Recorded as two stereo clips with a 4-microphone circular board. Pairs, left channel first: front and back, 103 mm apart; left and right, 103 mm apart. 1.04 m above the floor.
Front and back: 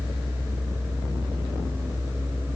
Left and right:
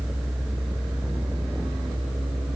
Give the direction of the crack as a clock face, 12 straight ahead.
I don't hear a crack.